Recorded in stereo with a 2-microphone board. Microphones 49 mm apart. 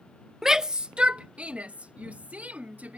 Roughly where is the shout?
Centre.